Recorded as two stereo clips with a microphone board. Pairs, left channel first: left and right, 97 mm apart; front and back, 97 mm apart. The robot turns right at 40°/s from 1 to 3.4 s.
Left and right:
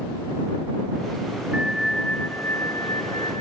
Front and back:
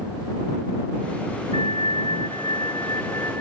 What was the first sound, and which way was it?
A bell, 10° right.